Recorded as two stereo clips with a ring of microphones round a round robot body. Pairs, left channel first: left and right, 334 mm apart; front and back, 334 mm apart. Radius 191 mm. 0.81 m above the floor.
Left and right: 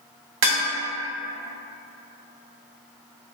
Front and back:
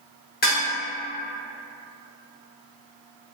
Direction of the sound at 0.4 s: 65° right.